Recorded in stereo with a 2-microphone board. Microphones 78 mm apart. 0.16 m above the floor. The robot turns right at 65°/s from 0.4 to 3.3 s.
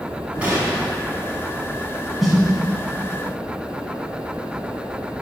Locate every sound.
0.4 s a gunshot: 20° right (ahead or behind), 1.2 m; by 0.9 s 25° right (ahead or behind), 1.2 m
2.2 s a snare drum: centre (ahead or behind), 1.0 m; by 2.4 s 5° right (ahead or behind), 1.0 m